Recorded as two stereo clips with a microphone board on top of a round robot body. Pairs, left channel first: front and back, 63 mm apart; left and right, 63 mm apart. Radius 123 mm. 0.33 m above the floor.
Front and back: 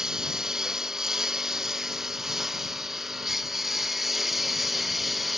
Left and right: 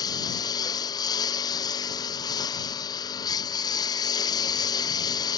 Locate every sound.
0.0 s a lawn mower: 100° left; by 5.4 s 90° left